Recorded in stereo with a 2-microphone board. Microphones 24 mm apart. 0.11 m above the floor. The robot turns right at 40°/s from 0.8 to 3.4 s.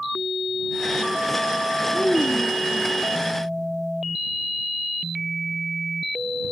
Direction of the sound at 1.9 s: 40° left.